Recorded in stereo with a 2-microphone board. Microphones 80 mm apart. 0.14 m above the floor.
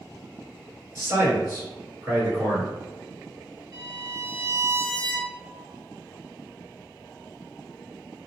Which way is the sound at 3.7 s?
50° right (ahead or behind).